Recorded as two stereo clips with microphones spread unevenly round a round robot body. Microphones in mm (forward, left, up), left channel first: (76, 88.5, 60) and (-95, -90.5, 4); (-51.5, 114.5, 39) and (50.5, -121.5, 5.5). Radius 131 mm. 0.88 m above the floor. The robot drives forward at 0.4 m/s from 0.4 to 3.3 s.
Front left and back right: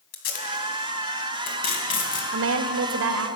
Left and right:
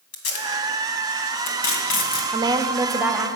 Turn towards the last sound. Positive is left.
turn(degrees=-150)